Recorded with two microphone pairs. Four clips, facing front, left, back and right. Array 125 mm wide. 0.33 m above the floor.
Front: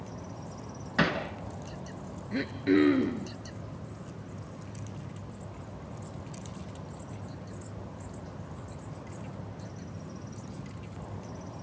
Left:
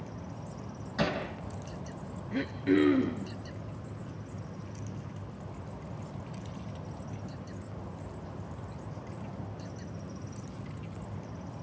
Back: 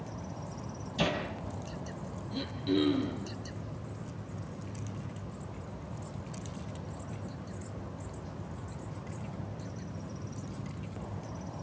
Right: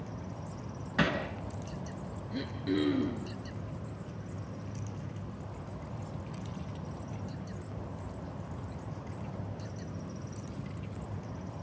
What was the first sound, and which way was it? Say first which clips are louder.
Hammering: right 1 dB, front 3 dB; 20° right.